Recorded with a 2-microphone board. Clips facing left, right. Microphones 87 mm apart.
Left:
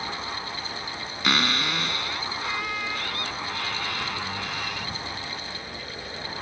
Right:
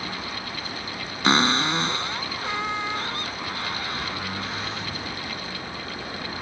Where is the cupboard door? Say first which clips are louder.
Right 5 dB; 30° right (ahead or behind).